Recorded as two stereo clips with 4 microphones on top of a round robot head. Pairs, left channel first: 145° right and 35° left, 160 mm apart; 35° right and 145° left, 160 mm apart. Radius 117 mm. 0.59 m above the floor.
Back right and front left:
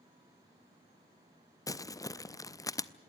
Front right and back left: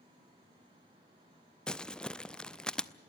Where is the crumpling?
115° right, 0.7 m.